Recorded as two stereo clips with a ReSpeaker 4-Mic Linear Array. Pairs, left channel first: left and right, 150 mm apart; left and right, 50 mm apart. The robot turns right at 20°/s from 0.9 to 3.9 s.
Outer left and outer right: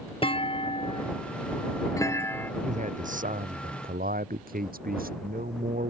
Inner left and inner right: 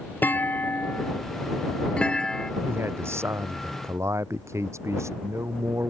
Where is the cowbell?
I don't hear a cowbell.